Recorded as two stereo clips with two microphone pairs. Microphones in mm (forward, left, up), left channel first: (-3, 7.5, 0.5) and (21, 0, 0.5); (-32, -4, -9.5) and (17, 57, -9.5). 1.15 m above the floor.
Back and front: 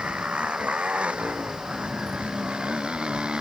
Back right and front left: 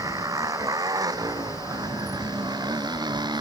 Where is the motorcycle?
10° left; by 3.4 s 25° left.